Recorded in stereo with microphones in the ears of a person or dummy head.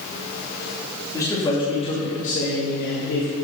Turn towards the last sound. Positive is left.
turn(degrees=70)  # may be behind; listen again after turning